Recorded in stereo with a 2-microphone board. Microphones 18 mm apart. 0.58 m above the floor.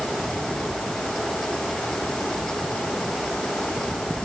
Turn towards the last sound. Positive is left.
No sound to turn to.